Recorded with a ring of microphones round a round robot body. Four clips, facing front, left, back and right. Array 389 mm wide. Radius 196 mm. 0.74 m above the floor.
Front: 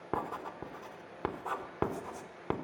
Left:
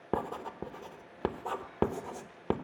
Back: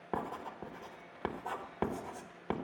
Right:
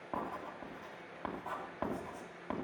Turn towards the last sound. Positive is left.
turn(degrees=70)